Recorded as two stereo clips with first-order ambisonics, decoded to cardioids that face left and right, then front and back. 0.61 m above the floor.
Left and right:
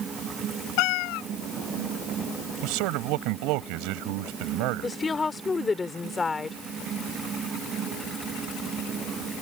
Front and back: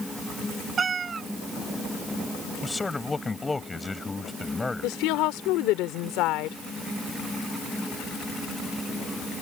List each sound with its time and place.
0.8 s a cat meowing: 110° left
2.6 s a man speaking: 80° right
4.8 s a woman speaking: 15° left